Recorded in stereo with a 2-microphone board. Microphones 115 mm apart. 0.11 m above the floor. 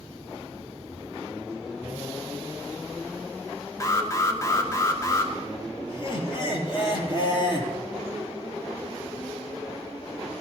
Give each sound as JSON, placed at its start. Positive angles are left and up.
{"t": 3.8, "sound": "an alarm", "side_deg": 25, "distance_m": 1.6}
{"t": 5.9, "sound": "laughter", "side_deg": 45, "distance_m": 3.0}